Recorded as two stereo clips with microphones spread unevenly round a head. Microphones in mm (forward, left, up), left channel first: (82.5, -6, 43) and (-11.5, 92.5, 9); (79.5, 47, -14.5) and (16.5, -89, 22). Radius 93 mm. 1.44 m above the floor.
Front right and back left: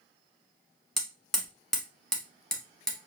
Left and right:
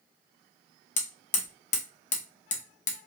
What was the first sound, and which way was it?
Hammering, 25° left.